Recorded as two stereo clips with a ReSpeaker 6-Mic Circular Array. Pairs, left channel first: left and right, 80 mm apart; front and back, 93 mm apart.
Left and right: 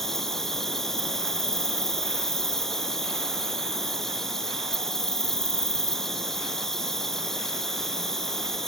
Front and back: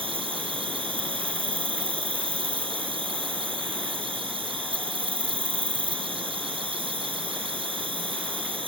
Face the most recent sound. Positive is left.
turn(degrees=175)